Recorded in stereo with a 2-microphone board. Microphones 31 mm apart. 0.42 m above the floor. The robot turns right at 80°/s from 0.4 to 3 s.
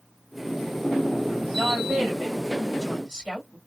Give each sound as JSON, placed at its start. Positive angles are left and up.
{"t": 1.5, "sound": "a woman speaking", "azimuth_deg": -105, "distance_m": 2.0}